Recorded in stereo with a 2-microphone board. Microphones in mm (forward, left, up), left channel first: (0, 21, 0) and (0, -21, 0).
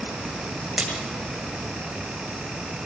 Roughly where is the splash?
Centre.